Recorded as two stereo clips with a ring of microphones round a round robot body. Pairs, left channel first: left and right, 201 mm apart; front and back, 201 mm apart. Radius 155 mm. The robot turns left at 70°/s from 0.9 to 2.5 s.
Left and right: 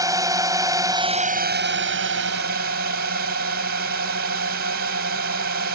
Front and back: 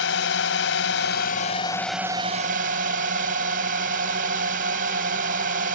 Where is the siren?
No siren in this recording.